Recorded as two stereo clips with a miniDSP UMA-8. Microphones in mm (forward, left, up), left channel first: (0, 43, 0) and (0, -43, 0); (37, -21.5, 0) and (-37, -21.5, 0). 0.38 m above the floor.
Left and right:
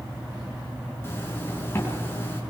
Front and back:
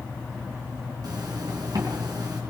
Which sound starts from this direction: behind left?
A zipper, at 1.0 s.